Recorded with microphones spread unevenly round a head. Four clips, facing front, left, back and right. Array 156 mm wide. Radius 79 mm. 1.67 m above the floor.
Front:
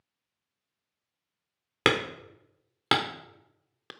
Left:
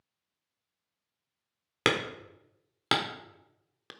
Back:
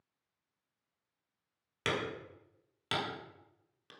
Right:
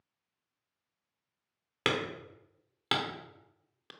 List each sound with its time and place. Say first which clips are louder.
1.9 s hammering: left 3 dB, front 9 dB; 25° left, 0.9 m